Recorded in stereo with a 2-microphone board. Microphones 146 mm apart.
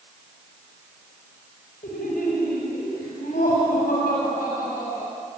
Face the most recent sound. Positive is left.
turn(degrees=85)